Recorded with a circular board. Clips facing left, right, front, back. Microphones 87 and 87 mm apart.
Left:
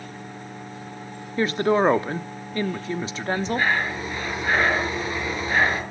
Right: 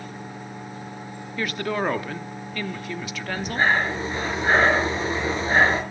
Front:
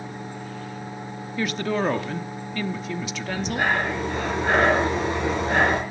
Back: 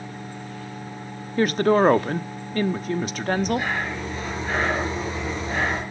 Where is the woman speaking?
145° left, 1.0 m.